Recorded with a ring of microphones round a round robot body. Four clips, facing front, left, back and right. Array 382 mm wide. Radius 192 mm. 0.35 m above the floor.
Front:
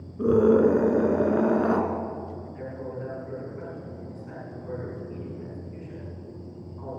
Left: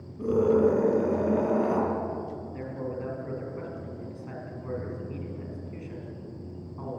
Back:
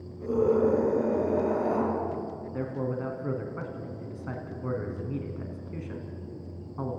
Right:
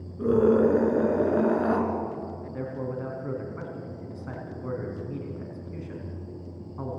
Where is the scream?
10° right, 4.5 m.